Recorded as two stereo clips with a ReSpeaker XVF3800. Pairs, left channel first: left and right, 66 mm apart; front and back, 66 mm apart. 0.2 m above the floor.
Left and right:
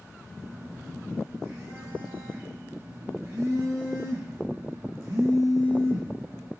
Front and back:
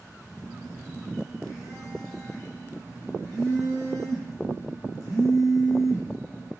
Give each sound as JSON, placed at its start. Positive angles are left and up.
{"t": 0.4, "sound": "a phone buzzing", "azimuth_deg": -50, "distance_m": 1.2}